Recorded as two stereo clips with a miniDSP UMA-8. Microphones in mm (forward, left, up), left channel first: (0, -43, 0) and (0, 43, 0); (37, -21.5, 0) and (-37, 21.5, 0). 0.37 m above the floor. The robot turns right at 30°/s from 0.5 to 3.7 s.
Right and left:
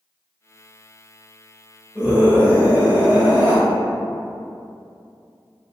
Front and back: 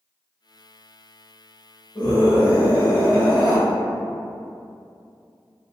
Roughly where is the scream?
Ahead.